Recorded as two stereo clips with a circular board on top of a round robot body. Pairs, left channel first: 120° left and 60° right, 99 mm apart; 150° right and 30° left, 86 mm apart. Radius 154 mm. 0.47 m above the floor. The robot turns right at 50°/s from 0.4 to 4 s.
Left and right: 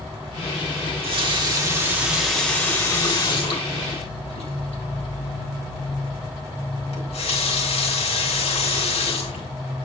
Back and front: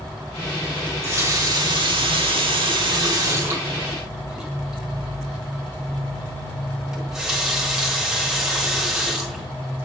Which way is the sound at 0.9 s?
40° right.